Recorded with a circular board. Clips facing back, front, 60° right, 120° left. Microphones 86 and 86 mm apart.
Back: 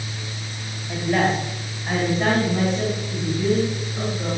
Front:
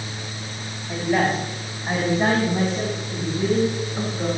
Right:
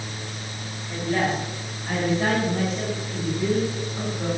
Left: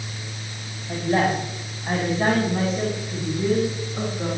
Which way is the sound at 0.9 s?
85° left.